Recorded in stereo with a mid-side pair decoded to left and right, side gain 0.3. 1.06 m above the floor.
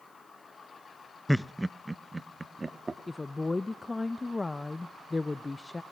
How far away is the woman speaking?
About 0.6 m.